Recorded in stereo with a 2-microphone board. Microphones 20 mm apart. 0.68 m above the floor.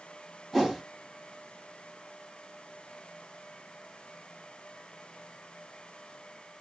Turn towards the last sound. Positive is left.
turn(degrees=-5)  # may be behind; listen again after turning